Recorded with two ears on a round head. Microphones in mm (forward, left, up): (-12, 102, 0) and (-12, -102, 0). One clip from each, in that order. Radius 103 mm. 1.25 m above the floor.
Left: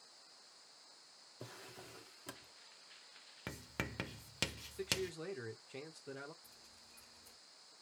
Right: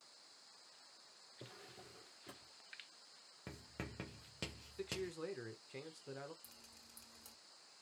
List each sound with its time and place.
1.4 s a drawer: 45° left (ahead or behind), 0.9 m
3.5 s writing: 40° left (ahead or behind), 0.6 m
4.8 s a man speaking: 5° left (ahead or behind), 1.0 m
6.4 s dripping: 55° right (ahead or behind), 1.9 m